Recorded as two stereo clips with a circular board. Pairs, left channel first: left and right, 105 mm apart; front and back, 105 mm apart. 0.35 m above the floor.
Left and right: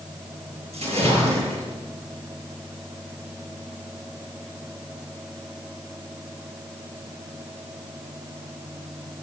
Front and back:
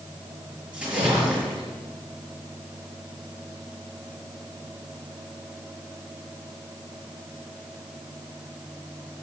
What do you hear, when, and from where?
0.7 s a splash: 100° right, 6 m